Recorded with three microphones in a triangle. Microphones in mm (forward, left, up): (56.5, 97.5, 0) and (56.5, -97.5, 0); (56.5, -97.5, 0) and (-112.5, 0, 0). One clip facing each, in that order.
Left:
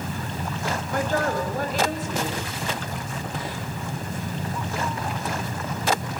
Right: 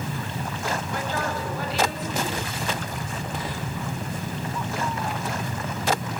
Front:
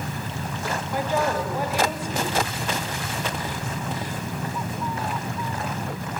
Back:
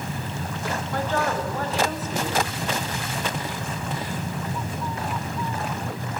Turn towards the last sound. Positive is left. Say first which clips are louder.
# left 4 dB, front 2 dB
turn(degrees=50)